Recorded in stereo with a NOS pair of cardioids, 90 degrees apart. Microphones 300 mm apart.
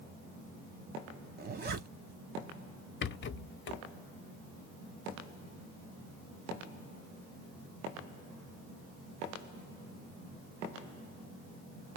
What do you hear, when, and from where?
1.4 s a zipper: 30° right, 0.8 m
3.0 s a rattle: 35° left, 0.6 m